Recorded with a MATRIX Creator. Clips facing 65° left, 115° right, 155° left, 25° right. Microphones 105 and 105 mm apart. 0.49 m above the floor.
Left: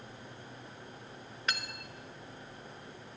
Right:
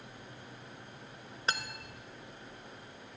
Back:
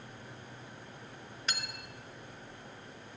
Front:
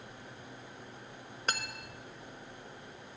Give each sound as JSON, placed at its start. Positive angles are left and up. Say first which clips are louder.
{"t": 1.5, "sound": "cutlery clinking", "louder": "right 2 dB, front 4 dB", "azimuth_deg": -55, "distance_m": 0.8}